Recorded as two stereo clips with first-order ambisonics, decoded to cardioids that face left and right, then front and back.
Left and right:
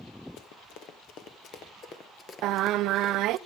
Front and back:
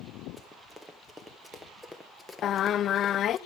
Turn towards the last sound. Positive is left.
turn(degrees=-55)